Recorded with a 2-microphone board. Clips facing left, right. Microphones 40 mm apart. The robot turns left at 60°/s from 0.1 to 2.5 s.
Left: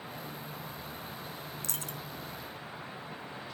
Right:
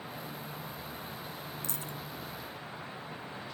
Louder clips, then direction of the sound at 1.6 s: Even; 55° left (ahead or behind).